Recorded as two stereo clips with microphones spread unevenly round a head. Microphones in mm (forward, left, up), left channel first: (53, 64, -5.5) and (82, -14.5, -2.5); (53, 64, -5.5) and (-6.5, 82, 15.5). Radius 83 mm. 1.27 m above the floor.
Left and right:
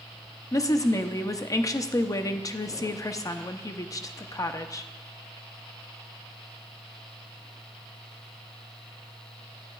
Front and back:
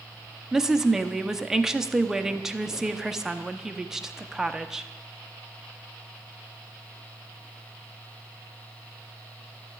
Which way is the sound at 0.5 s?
70° left.